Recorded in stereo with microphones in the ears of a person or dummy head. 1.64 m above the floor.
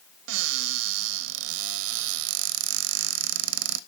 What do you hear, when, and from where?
0.3 s a cupboard door: 70° right (ahead or behind), 0.7 m